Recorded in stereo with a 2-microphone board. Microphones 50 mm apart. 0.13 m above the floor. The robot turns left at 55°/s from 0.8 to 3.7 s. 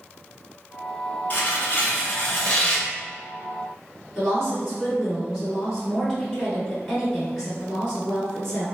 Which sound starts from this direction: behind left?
Tearing paper, at 1.3 s.